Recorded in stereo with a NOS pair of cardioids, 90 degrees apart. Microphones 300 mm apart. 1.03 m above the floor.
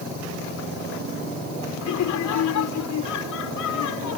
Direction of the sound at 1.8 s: 65° left.